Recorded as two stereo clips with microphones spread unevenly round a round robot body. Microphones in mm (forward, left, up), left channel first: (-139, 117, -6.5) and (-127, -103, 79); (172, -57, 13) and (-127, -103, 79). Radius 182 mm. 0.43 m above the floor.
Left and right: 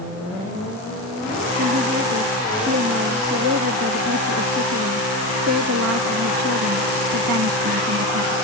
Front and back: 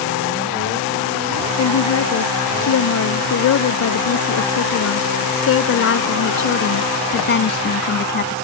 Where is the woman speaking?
25° right; by 8.4 s 55° right.